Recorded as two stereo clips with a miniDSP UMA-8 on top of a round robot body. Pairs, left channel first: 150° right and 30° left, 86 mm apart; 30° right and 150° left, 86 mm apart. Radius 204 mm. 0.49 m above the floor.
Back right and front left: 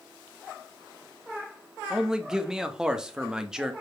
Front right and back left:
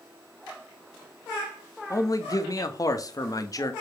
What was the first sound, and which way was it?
A man speaking, 50° right.